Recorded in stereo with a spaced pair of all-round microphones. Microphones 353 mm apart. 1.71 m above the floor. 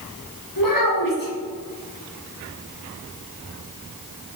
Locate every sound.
0.6 s a child speaking: 60° left (ahead or behind), 1.8 m